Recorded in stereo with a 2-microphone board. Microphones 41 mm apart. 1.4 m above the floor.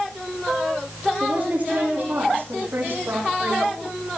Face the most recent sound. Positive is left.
turn(degrees=-70)  # may be behind; listen again after turning